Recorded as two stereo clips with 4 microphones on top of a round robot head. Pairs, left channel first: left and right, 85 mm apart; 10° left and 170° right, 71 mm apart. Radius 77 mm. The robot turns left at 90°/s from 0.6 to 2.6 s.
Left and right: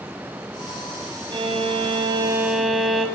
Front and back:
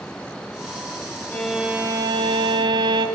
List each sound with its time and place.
1.3 s a violin: 65° right, 3 m; by 3.1 s straight behind, 3 m